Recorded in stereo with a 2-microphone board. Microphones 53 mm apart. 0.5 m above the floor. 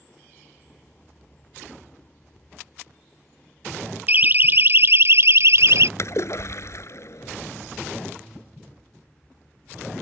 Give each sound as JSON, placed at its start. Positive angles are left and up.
{"t": 4.1, "sound": "a siren", "side_deg": -35}
{"t": 6.0, "sound": "a splash", "side_deg": 60}